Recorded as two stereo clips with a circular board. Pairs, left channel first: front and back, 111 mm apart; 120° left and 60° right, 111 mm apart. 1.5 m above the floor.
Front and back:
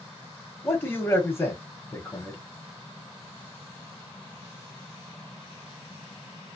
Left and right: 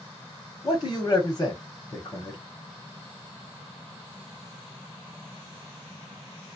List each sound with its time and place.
0.6 s a man speaking: 65° left, 0.9 m